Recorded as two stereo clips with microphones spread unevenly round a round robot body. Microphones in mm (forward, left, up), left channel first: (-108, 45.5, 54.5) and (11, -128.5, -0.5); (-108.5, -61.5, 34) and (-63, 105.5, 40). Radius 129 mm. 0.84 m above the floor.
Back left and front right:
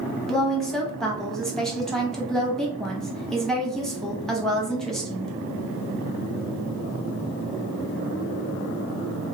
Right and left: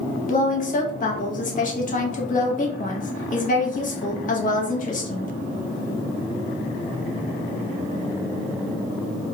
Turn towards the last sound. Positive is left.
turn(degrees=-140)